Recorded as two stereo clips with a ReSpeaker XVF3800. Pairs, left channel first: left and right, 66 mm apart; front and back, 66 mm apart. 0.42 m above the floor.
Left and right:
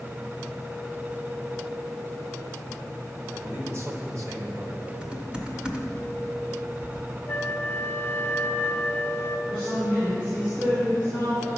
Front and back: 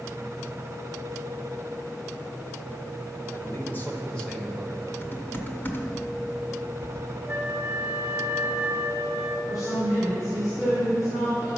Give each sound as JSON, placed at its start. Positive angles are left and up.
{"t": 3.3, "sound": "a man speaking", "azimuth_deg": -40, "distance_m": 1.8}
{"t": 5.0, "sound": "typing on a keyboard", "azimuth_deg": -25, "distance_m": 1.0}
{"t": 7.3, "sound": "a flute", "azimuth_deg": 130, "distance_m": 1.0}
{"t": 9.5, "sound": "a woman speaking", "azimuth_deg": -25, "distance_m": 4.0}